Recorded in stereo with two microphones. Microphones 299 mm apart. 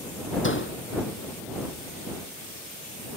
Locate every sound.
0.4 s a door slam: 40° left (ahead or behind)